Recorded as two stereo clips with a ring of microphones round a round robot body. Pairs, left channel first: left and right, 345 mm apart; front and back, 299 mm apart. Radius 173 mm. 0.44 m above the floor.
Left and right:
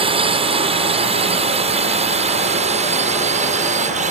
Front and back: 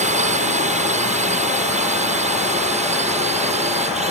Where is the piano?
No piano in this recording.